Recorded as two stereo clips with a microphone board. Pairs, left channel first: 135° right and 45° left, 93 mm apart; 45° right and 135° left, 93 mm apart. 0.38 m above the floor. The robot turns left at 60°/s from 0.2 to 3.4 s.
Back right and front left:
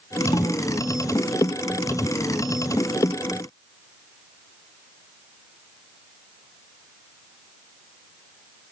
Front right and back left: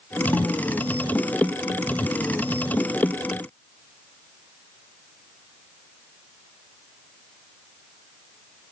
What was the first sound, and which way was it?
A snare drum, 110° right.